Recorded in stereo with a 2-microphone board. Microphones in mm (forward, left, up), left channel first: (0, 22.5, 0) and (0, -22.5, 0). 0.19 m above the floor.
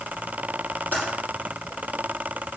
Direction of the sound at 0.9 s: 40° left (ahead or behind).